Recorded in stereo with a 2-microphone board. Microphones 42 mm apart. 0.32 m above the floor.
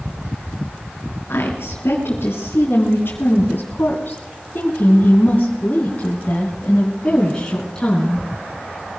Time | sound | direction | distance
1.3 | a woman speaking | 75° left (ahead or behind) | 3.5 m